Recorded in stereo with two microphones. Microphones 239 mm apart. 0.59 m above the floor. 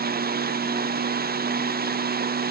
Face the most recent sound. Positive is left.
No sound to turn to.